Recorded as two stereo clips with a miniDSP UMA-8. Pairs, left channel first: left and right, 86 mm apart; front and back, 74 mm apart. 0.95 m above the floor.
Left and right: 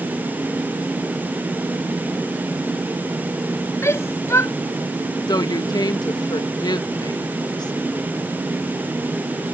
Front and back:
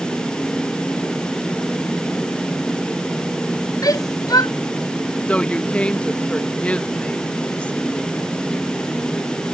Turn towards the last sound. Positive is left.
turn(degrees=70)